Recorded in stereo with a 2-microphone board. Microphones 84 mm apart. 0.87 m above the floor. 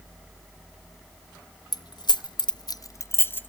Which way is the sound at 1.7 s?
50° left (ahead or behind).